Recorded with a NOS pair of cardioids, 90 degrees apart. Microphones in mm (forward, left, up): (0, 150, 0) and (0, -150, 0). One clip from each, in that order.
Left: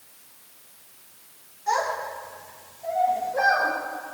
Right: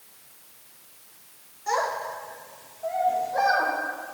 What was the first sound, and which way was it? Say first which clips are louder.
A child speaking: left 1 dB; 20° right.